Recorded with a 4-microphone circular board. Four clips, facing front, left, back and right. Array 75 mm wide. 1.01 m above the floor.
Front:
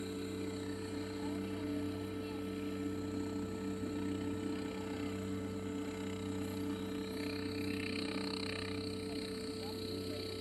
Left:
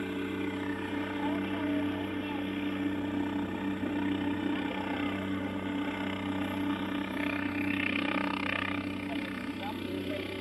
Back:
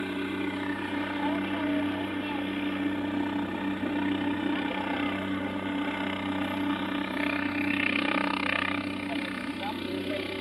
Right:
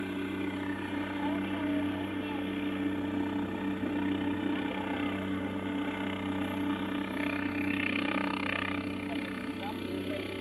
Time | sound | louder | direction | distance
0.0 | a helicopter | even, back 10 dB | 175° left | ?